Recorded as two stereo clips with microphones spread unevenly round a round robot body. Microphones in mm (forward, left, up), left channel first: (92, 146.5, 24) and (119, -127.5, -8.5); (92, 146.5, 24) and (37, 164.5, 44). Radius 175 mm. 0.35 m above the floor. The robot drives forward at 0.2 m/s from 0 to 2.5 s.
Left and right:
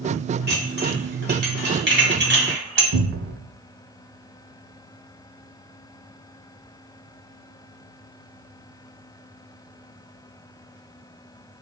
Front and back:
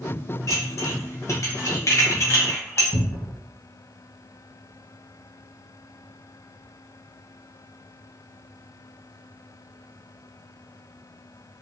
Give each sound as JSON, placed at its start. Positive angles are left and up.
{"t": 0.5, "sound": "dishes clattering", "azimuth_deg": -35, "distance_m": 2.0}
{"t": 2.9, "sound": "a cupboard door", "azimuth_deg": -30, "distance_m": 0.6}